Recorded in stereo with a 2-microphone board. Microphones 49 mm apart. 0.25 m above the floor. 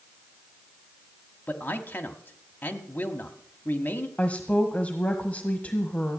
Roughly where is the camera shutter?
I don't hear a camera shutter.